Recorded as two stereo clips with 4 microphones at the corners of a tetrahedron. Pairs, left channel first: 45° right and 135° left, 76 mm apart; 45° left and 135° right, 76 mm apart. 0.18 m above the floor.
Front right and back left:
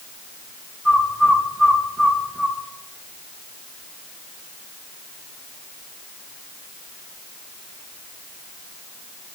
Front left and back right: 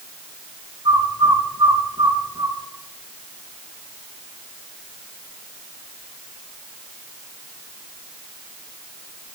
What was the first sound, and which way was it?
A bird, 130° right.